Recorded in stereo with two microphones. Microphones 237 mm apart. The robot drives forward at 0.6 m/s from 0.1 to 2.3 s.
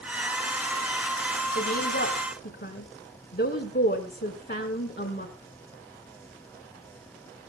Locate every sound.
1.6 s a woman speaking: 45° left (ahead or behind), 2.0 m; by 5.3 s 50° left (ahead or behind), 1.9 m